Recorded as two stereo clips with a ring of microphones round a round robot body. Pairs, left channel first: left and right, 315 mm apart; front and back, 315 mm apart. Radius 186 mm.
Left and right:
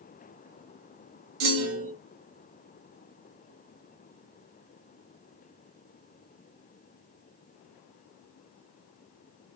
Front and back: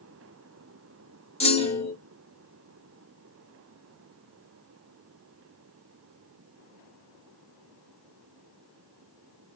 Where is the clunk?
70° right, 1.4 m.